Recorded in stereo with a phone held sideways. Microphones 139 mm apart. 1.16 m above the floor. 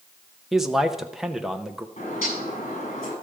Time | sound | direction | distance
0.5 | a man speaking | centre (ahead or behind) | 0.7 m
2.0 | a bird | 50° left (ahead or behind) | 7.5 m